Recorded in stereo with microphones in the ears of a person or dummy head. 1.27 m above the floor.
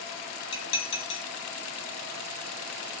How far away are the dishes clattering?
About 4 m.